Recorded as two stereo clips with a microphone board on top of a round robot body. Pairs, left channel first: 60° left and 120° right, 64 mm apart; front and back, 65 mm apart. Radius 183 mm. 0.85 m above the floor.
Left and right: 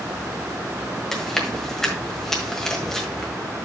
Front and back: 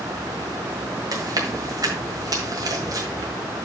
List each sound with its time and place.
1.1 s chewing: 145° left, 1.5 m